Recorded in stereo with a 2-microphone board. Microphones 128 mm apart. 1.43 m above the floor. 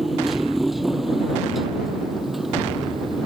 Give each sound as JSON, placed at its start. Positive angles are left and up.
{"t": 0.0, "sound": "a motorcycle", "side_deg": 0}